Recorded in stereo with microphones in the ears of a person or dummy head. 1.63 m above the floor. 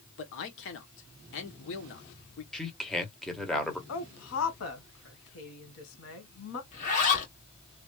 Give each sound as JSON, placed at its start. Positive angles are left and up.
{"t": 0.2, "sound": "a man speaking", "side_deg": 70, "distance_m": 1.0}
{"t": 2.5, "sound": "a man speaking", "side_deg": 5, "distance_m": 1.1}
{"t": 3.9, "sound": "a woman speaking", "side_deg": 70, "distance_m": 1.3}
{"t": 6.7, "sound": "a zipper", "side_deg": 45, "distance_m": 2.0}